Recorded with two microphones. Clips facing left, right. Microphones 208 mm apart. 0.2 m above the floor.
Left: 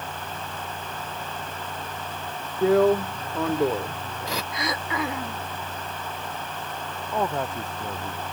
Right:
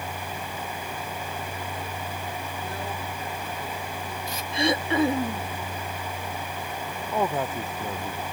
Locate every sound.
2.6 s a drill: 85° left
4.5 s throat clearing: 25° right (ahead or behind)
7.1 s a man speaking: 5° right (ahead or behind)